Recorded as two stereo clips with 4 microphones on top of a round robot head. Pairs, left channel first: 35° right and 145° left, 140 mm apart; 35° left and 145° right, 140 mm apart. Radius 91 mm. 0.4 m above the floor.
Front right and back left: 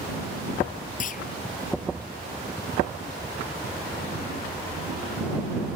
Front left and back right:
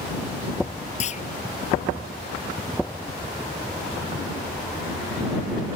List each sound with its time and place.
1.0 s a clunk: 5° right